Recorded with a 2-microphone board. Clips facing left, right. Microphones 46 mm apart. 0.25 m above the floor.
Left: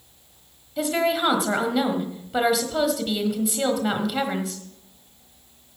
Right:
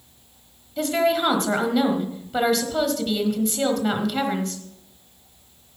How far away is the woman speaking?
About 1.4 m.